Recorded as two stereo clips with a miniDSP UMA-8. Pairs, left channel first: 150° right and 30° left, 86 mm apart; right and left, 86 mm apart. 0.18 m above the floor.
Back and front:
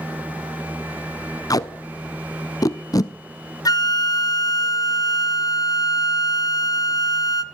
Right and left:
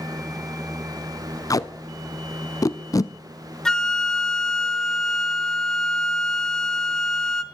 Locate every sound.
1.5 s tape being pulled: 120° right, 0.6 m
3.6 s a flute: 170° right, 0.6 m